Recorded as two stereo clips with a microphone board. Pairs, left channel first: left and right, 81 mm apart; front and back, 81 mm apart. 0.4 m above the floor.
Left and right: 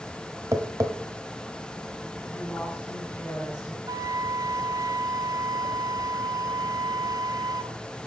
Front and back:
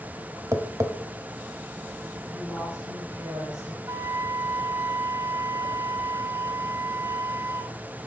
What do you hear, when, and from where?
0.5 s tapping: 135° right, 1.0 m
2.2 s a woman speaking: 150° left, 6.5 m
3.9 s a flute: 125° right, 0.6 m